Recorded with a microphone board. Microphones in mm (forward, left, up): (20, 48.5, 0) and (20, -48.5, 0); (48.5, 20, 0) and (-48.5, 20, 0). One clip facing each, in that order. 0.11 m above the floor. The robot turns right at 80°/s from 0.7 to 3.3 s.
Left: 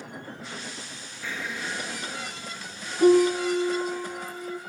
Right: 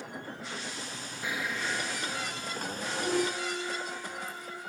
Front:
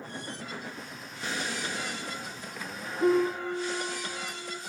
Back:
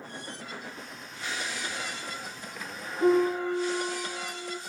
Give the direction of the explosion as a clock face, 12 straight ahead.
1 o'clock.